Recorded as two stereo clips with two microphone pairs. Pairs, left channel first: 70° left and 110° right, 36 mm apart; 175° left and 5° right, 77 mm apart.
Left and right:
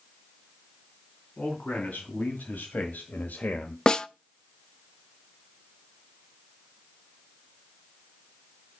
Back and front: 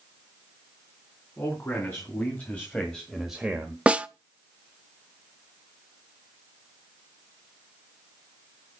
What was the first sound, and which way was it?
A man speaking, 120° left.